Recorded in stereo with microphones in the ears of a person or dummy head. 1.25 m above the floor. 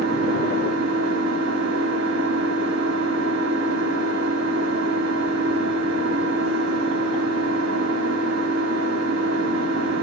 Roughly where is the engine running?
Right.